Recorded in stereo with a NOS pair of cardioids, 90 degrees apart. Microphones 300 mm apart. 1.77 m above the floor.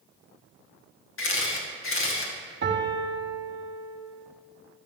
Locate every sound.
1.2 s a camera shutter: 45° left, 2 m
2.6 s a piano: 40° right, 1.5 m